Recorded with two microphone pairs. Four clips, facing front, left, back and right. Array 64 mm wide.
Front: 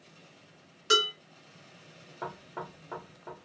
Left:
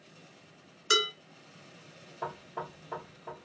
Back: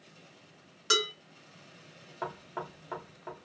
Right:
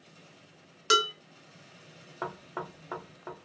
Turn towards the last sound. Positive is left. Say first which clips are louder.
# right 1 dB, back 1 dB
turn(degrees=-115)